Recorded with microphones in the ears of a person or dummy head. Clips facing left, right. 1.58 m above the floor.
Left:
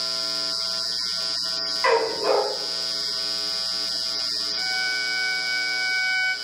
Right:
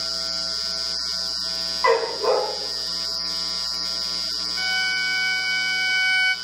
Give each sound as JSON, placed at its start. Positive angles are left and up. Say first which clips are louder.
{"t": 1.8, "sound": "a dog barking", "louder": "right 1 dB", "side_deg": 25, "distance_m": 3.5}
{"t": 4.6, "sound": "a violin", "louder": "right 2 dB", "side_deg": -40, "distance_m": 0.6}